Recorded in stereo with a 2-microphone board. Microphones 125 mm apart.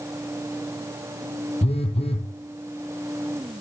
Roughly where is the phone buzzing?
Left.